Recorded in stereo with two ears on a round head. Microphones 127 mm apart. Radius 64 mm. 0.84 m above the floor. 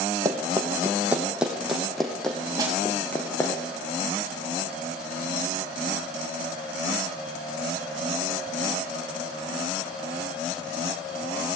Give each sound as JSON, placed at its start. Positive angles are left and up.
{"t": 0.2, "sound": "running footsteps", "side_deg": -25, "distance_m": 2.5}
{"t": 2.6, "sound": "a snare drum", "side_deg": -25, "distance_m": 5.5}